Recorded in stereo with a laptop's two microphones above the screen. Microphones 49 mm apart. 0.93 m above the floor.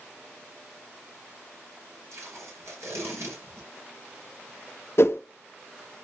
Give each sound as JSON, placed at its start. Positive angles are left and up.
{"t": 2.1, "sound": "tape being pulled", "side_deg": -65, "distance_m": 3.5}
{"t": 5.0, "sound": "a whoosh", "side_deg": 55, "distance_m": 0.6}